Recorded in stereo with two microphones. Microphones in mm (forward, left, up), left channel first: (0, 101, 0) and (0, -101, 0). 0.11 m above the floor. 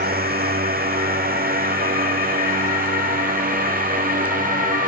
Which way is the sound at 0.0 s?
50° right (ahead or behind).